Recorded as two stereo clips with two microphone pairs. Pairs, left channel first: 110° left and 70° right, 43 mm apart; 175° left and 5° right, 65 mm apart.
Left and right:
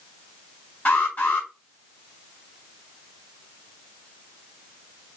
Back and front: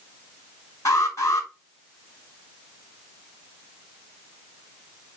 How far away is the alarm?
About 4 m.